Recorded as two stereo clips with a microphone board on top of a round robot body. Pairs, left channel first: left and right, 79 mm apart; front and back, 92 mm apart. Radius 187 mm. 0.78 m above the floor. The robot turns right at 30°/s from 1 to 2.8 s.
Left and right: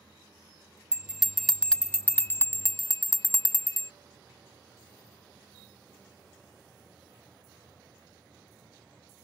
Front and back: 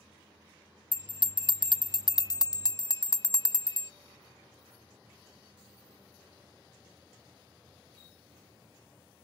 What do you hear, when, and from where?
0.9 s a bell: 10° right; by 3.9 s 45° left